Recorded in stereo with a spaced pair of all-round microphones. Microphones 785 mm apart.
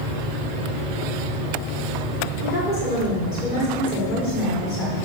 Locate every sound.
2.4 s a woman speaking: 85° left, 4 m